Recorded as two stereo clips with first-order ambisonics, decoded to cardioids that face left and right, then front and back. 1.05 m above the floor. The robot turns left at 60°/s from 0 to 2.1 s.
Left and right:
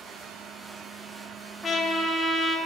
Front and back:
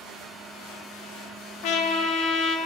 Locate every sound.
1.6 s a trumpet: 15° left, 1.1 m; by 2.6 s 15° right, 1.1 m